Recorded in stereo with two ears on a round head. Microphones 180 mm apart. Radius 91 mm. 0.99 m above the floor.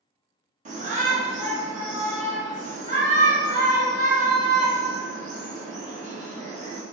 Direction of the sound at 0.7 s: 40° right (ahead or behind).